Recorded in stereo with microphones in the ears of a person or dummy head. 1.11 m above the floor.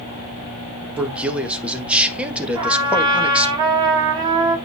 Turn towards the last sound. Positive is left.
turn(degrees=-25)  # may be behind; listen again after turning